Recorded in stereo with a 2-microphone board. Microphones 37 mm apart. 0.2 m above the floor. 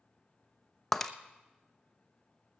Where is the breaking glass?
10° left (ahead or behind), 0.7 m.